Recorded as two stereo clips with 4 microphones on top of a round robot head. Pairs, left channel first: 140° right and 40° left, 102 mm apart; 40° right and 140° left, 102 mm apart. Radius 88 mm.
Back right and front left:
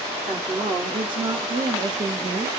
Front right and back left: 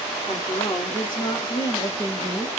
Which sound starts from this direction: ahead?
A woman speaking, at 0.3 s.